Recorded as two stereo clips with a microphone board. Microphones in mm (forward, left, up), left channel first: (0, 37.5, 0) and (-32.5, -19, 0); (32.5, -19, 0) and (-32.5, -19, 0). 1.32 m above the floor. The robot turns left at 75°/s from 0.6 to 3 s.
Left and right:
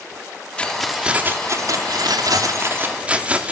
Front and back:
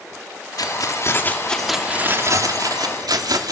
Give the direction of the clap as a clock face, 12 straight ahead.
No clap in this recording.